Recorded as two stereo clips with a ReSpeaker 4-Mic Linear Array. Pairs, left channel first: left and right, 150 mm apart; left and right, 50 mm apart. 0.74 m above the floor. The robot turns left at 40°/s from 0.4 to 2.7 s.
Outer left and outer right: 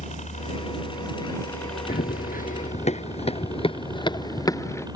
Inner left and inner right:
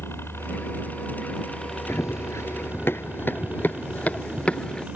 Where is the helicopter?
60° left; by 5.0 s 30° right.